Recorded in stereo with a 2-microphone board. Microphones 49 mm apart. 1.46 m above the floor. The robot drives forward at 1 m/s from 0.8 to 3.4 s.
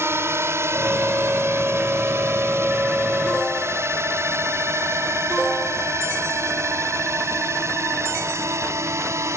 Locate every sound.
0.0 s a drone: 65° right (ahead or behind); by 9.4 s 80° right